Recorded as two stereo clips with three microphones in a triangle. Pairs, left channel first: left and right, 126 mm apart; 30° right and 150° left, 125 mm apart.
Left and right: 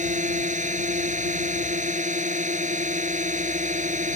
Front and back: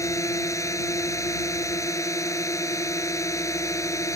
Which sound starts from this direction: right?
A drone, at 0.0 s.